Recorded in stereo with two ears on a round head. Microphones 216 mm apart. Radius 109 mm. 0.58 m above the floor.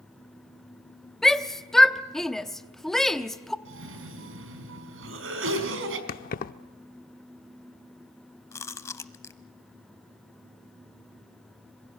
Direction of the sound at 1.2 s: Centre (ahead or behind).